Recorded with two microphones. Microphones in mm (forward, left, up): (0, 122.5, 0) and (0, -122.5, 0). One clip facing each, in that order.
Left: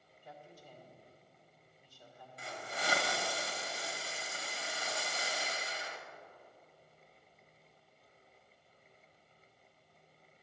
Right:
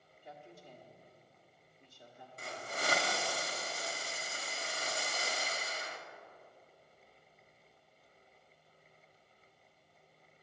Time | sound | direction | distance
0.2 | a woman speaking | 25° right (ahead or behind) | 1.5 m
2.4 | a hiss | 50° right (ahead or behind) | 1.2 m